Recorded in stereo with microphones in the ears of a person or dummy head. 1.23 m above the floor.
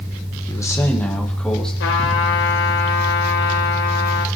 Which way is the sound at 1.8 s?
65° left (ahead or behind).